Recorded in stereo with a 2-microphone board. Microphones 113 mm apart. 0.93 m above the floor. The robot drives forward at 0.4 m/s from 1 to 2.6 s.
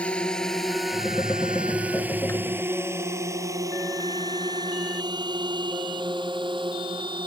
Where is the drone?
10° left (ahead or behind); by 7.3 s 50° right (ahead or behind).